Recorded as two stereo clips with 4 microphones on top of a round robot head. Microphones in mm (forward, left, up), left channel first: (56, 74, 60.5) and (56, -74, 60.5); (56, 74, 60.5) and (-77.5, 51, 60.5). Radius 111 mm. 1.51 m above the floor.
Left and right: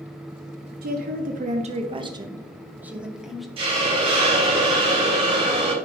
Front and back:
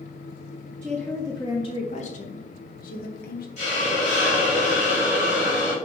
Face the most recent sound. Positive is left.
turn(degrees=-35)